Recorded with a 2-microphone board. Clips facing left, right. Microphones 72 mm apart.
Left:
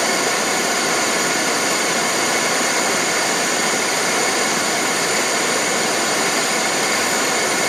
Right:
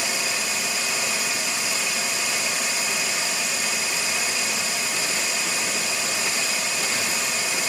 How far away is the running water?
About 0.7 m.